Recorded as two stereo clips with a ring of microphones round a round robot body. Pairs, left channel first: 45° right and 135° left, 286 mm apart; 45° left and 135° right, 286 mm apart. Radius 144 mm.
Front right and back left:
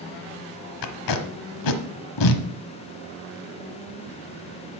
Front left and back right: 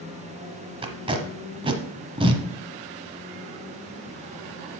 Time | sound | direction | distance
0.8 | tape being pulled | 60° right | 1.1 m